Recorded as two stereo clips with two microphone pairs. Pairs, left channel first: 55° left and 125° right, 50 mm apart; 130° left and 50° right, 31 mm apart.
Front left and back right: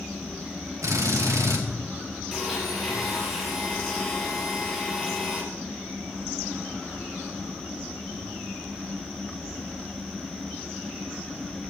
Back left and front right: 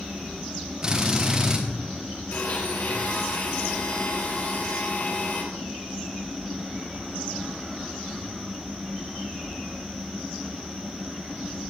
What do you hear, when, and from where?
0.8 s a drill: 115° right, 4 m
2.3 s a blender: 145° left, 6.5 m